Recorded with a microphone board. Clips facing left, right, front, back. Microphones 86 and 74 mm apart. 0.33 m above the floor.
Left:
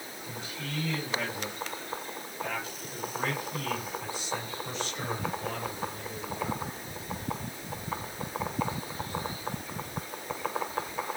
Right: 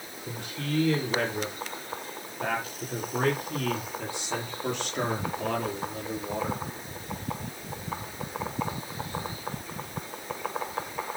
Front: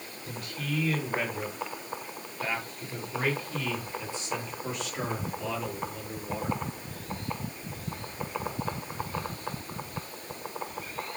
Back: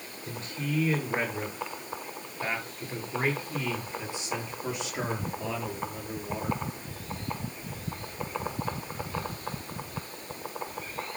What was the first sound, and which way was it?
A man speaking, 115° right.